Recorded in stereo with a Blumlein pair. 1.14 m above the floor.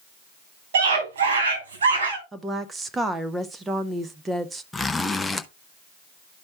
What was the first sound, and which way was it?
A scream, 60° right.